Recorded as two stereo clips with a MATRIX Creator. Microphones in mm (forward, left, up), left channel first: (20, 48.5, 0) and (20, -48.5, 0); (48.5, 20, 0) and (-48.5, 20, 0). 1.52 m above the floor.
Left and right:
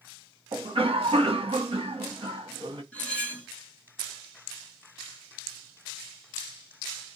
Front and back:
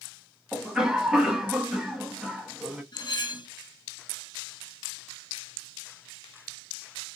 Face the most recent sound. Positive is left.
turn(degrees=20)